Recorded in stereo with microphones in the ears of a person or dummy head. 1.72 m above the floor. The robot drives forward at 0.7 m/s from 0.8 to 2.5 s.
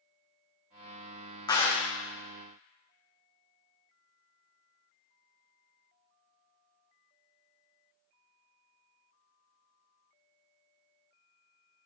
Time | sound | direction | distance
1.5 | a clap | 20° left (ahead or behind) | 0.8 m